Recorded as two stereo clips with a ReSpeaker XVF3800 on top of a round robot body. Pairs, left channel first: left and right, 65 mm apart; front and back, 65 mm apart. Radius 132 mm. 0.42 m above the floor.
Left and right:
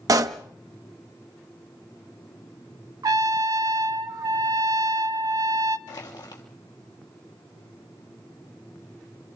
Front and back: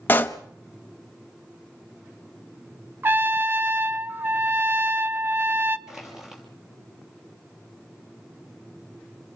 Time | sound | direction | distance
0.1 | a pop | 60° right | 0.8 m
3.0 | a trumpet | 120° right | 0.5 m
5.9 | crushing | 95° left | 3 m